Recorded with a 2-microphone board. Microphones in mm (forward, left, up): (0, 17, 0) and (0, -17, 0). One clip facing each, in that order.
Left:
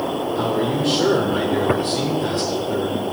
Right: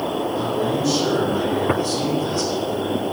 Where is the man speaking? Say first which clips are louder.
Left 3 dB; 50° left (ahead or behind), 2.0 m.